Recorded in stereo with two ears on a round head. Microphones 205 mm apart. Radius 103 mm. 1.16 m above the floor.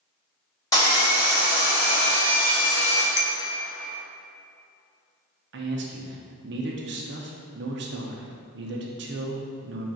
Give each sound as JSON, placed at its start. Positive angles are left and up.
{"t": 0.7, "sound": "sawing", "side_deg": 15, "distance_m": 1.3}
{"t": 3.2, "sound": "a clink", "side_deg": 45, "distance_m": 0.5}
{"t": 5.5, "sound": "a man speaking", "side_deg": -50, "distance_m": 0.7}